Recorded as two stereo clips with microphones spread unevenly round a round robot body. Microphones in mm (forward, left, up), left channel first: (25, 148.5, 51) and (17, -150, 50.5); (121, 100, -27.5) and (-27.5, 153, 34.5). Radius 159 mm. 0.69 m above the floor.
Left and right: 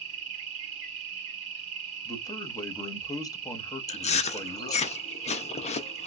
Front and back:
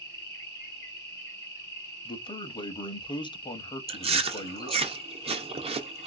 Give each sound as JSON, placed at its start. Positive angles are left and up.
{"t": 0.0, "sound": "an insect", "azimuth_deg": -95, "distance_m": 1.5}
{"t": 2.0, "sound": "a man speaking", "azimuth_deg": 10, "distance_m": 0.8}
{"t": 3.9, "sound": "chewing", "azimuth_deg": 105, "distance_m": 0.6}